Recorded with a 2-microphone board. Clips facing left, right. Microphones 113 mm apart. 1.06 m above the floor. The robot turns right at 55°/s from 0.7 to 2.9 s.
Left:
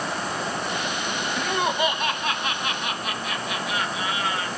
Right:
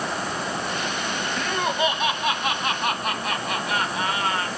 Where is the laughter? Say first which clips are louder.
Left 1 dB; 145° left, 1.4 m; by 4.5 s 130° right, 1.4 m.